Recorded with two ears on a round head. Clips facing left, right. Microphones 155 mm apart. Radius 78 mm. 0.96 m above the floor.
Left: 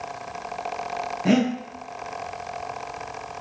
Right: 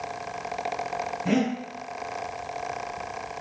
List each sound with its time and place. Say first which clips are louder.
1.2 s breathing: left 4 dB; 70° left (ahead or behind), 0.9 m